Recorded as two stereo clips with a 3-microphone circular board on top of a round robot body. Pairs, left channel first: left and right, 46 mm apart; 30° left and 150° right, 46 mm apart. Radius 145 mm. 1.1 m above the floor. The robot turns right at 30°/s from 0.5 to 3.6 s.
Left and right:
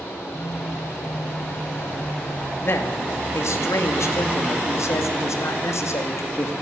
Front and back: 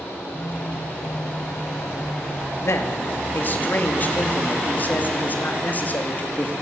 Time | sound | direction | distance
0.3 | a phone buzzing | 85° left | 5.5 m
2.6 | a man speaking | 55° left | 2.5 m